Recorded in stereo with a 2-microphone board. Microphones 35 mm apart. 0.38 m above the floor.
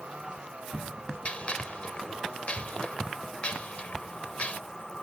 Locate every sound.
0.0 s a vehicle: 35° right (ahead or behind); by 5.0 s 15° left (ahead or behind)
1.2 s a gunshot: 35° left (ahead or behind)